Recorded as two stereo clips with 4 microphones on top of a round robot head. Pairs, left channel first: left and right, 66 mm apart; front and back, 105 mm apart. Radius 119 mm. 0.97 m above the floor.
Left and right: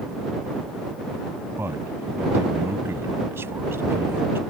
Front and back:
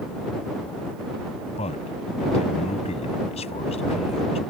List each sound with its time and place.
1.6 s a man speaking: 30° right